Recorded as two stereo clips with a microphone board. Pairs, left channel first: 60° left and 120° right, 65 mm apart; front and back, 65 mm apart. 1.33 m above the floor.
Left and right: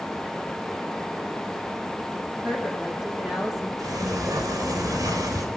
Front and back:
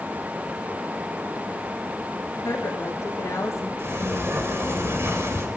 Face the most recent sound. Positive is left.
turn(degrees=-135)